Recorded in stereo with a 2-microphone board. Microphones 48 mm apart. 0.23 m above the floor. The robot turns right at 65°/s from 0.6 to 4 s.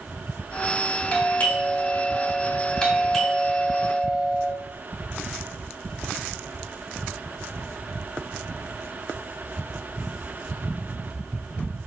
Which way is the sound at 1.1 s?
35° left.